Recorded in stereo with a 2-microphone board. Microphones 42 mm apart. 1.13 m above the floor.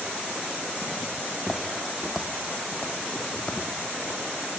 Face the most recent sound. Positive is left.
turn(degrees=35)  # may be behind; listen again after turning